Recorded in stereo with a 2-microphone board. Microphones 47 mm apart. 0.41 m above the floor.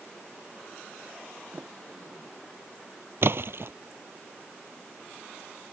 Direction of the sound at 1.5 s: 35° right (ahead or behind).